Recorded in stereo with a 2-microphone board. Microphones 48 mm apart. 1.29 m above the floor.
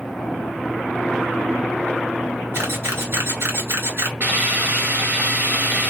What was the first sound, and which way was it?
A camera shutter, 60° right (ahead or behind).